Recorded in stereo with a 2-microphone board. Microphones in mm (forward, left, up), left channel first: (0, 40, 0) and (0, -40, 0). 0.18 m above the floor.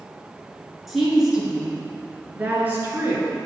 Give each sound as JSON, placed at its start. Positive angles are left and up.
{"t": 0.9, "sound": "a woman speaking", "side_deg": 0, "distance_m": 2.5}